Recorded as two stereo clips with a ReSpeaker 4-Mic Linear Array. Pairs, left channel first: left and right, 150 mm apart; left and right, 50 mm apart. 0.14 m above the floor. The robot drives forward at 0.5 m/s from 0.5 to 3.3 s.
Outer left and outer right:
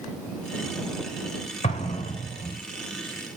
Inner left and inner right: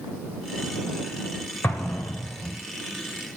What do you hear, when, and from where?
1.6 s an explosion: 45° left (ahead or behind), 3.5 m; by 2.6 s 50° left (ahead or behind), 3.5 m